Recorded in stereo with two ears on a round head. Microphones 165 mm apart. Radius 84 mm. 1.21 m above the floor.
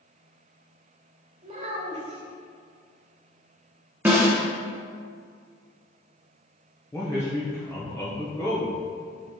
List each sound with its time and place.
1.4 s a child speaking: 40° right (ahead or behind), 1.7 m
4.0 s a snare drum: 10° right (ahead or behind), 1.0 m
6.9 s a man speaking: 15° left (ahead or behind), 0.9 m